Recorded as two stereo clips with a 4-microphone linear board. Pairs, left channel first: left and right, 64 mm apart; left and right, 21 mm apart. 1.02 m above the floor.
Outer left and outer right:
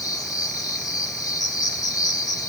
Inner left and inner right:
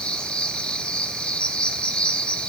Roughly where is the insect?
Left.